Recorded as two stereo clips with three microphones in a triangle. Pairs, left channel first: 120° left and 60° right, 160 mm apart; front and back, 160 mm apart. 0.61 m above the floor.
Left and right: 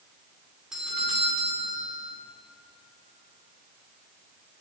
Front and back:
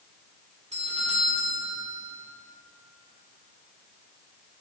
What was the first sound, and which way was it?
A doorbell, 145° right.